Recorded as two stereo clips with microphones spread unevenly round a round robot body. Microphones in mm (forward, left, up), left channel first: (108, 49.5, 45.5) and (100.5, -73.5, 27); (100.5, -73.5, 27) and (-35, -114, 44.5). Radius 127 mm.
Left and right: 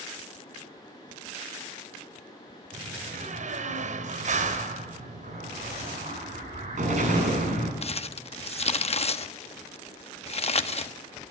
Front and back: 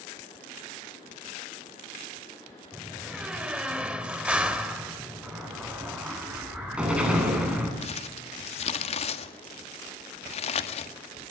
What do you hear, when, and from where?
2.7 s a door slam: 80° right, 3 m
5.2 s an explosion: 80° right, 9.5 m
7.8 s crumpling: 55° left, 1.4 m